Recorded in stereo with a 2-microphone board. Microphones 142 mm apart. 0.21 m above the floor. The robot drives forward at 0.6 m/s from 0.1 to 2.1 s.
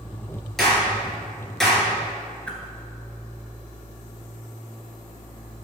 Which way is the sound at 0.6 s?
Centre (ahead or behind).